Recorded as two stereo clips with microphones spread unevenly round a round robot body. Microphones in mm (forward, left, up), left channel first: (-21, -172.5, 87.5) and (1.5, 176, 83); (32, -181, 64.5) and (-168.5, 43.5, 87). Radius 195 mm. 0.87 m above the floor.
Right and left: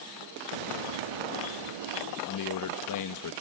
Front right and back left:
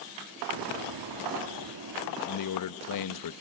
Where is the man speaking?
55° right.